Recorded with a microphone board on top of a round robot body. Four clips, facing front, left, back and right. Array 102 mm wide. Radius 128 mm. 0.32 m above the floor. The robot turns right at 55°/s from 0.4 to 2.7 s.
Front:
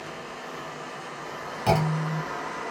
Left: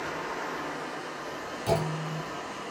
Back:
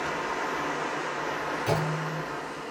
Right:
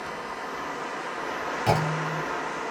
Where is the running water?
170° left, 0.9 m; by 2.7 s 65° right, 0.9 m.